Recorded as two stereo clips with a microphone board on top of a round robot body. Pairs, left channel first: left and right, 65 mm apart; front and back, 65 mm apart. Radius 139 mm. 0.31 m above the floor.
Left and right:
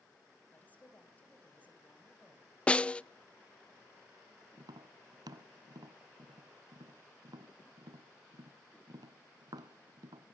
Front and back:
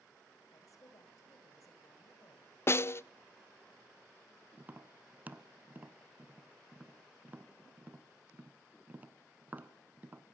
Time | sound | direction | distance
0.5 | a woman speaking | 25° left | 3 m
2.7 | a snare drum | 25° left | 0.5 m
4.6 | tapping | 115° right | 0.8 m